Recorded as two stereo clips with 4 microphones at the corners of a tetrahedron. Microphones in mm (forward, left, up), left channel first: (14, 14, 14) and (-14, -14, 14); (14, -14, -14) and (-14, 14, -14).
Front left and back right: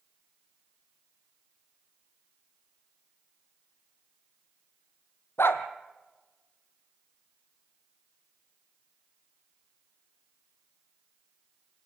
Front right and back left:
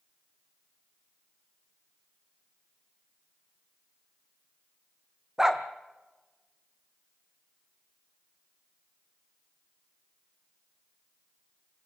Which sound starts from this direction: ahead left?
A dog barking, at 5.4 s.